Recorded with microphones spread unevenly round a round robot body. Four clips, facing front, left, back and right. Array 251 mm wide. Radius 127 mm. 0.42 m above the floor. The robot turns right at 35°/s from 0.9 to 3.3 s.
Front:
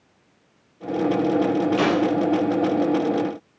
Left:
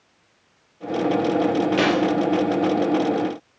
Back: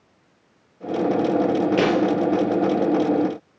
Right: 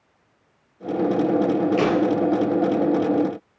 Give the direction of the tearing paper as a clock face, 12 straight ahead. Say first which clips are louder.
Left 1 dB, back 2 dB; 6 o'clock.